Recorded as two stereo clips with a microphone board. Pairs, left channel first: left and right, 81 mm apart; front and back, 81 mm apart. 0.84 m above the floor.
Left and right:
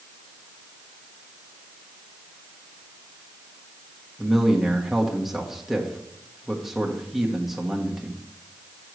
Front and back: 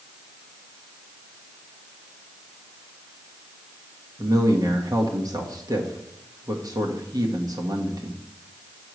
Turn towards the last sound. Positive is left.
turn(degrees=-175)